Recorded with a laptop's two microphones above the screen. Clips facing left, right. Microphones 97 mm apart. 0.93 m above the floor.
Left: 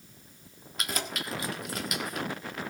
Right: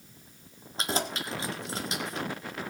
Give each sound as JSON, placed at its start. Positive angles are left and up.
{"t": 0.8, "sound": "keys jangling", "side_deg": -25, "distance_m": 1.6}